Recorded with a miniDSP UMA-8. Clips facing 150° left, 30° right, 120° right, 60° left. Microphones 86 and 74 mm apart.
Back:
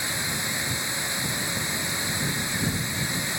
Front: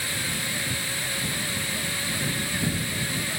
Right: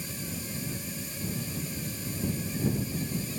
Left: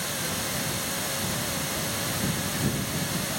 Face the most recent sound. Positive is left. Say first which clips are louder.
# back 1 dB, left 7 dB
turn(degrees=80)